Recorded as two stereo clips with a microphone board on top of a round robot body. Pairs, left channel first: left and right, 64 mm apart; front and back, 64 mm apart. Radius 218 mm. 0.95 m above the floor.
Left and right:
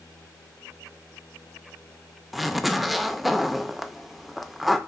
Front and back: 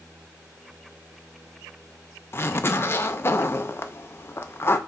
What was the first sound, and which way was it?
A zipper, 5° right.